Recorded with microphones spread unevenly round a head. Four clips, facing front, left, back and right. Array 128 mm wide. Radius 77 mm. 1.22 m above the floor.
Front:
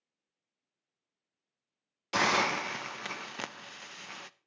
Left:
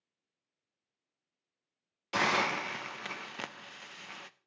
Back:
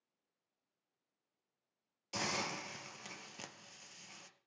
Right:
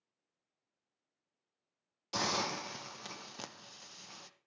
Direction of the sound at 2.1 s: 25° left.